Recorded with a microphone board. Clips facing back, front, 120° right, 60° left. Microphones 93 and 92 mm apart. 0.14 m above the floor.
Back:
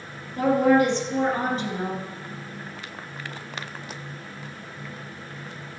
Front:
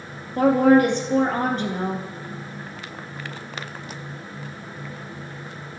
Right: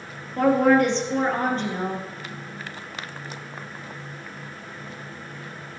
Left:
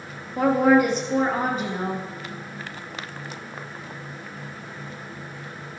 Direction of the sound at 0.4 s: 20° right.